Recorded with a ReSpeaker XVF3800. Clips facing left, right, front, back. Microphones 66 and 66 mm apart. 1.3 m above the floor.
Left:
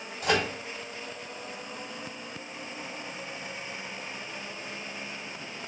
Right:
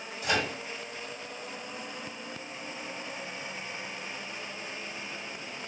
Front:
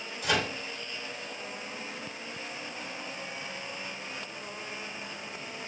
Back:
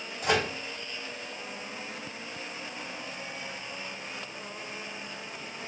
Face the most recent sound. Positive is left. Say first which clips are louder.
# left 3 dB, back 2 dB
turn(degrees=130)